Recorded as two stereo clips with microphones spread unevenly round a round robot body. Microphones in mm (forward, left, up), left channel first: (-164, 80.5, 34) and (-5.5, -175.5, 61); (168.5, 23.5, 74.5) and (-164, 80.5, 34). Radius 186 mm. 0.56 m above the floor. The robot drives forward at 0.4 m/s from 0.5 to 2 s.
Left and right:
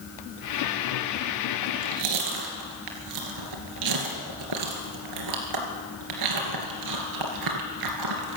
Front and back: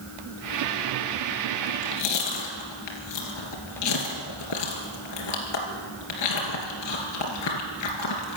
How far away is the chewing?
About 2.5 m.